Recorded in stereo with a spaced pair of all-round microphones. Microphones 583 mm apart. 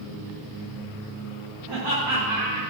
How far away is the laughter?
About 4.5 m.